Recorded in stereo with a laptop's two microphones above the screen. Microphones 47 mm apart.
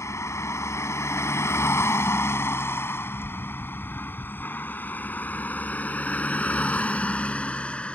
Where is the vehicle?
80° left; by 8.0 s 25° left (ahead or behind).